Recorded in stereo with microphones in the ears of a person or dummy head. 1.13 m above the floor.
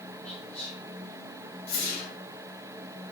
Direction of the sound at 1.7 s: 40° left (ahead or behind).